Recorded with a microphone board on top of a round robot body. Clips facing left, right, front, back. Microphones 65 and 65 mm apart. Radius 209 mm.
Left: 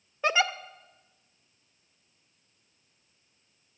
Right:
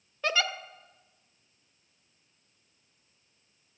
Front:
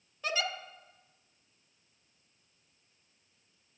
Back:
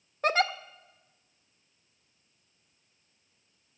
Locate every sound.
0.2 s a giggle: 155° left, 0.8 m